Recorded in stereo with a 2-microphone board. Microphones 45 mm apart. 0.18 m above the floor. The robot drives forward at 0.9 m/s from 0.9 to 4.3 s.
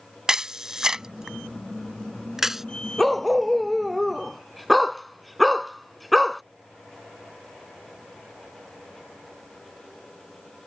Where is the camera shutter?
15° right (ahead or behind); by 2.6 s 10° right (ahead or behind).